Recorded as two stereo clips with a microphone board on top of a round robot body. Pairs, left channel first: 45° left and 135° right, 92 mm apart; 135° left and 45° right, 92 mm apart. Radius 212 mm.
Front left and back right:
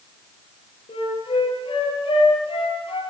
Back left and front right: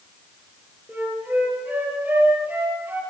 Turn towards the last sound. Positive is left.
turn(degrees=30)